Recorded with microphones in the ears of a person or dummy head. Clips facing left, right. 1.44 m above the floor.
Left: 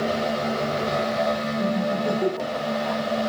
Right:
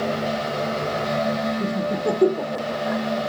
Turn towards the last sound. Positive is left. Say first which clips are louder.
# even
turn(degrees=-45)  # may be behind; listen again after turning